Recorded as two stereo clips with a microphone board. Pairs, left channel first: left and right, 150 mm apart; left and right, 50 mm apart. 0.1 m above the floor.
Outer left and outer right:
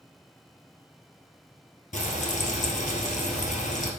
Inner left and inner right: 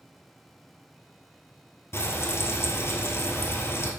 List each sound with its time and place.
1.9 s frying: 55° left (ahead or behind), 1.5 m